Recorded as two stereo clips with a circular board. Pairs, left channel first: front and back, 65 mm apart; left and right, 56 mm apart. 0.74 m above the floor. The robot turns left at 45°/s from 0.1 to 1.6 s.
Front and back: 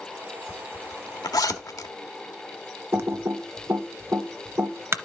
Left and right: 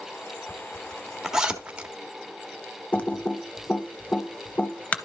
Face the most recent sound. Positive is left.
turn(degrees=145)